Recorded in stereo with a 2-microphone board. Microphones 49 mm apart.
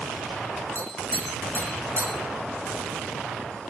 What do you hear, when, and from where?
0.8 s tapping: 60° right (ahead or behind), 1.0 m